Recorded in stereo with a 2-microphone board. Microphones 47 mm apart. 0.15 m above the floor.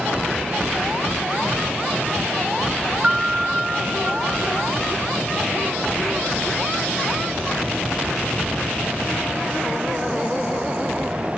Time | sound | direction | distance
3.0 | a piano | 35° right (ahead or behind) | 0.5 m